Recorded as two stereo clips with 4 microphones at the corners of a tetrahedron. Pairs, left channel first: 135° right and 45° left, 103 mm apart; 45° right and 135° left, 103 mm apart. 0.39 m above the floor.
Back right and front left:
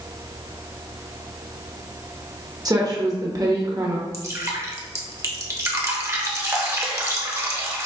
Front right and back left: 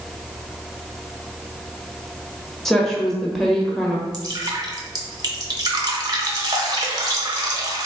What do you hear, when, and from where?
2.6 s a woman speaking: 40° left, 1.0 m
4.1 s dripping: 100° left, 0.8 m